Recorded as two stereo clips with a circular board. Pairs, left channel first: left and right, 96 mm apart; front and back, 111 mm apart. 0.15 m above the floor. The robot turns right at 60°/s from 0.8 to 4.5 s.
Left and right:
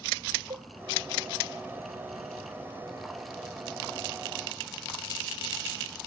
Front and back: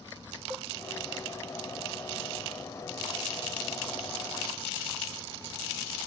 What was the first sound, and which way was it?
A cowbell, 95° right.